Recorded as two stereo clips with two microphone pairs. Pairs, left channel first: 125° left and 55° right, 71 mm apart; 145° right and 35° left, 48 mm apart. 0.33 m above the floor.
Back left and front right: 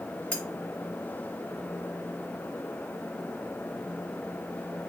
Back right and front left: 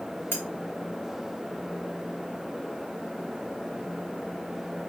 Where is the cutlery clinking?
160° right, 0.9 m.